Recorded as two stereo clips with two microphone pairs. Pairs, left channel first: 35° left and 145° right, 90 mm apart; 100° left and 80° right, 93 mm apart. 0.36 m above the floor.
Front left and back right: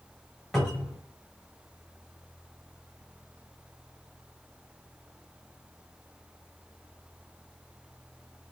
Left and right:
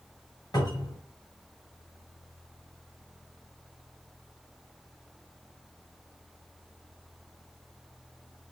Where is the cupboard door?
120° left, 2 m.